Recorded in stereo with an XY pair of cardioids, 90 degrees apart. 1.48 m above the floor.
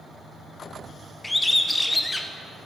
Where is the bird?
15° left, 0.6 m.